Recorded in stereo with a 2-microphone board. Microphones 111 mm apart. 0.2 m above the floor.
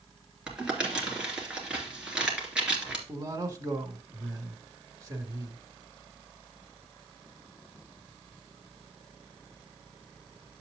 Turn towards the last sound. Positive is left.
turn(degrees=-25)  # may be behind; listen again after turning